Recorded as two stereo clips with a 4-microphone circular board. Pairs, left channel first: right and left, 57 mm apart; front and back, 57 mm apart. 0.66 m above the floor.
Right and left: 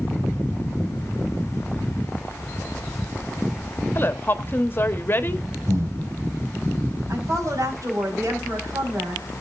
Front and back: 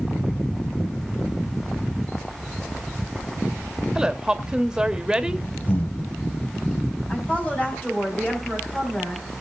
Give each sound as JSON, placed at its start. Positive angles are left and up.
{"t": 4.0, "sound": "a woman speaking", "azimuth_deg": -110, "distance_m": 1.0}
{"t": 5.7, "sound": "breathing", "azimuth_deg": 55, "distance_m": 2.0}
{"t": 7.1, "sound": "a woman speaking", "azimuth_deg": 65, "distance_m": 5.5}